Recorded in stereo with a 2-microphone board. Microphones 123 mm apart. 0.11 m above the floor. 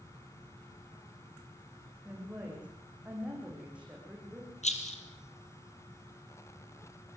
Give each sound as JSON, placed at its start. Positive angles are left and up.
{"t": 2.0, "sound": "a woman speaking", "side_deg": -10, "distance_m": 8.0}
{"t": 4.6, "sound": "a rattle", "side_deg": 65, "distance_m": 3.5}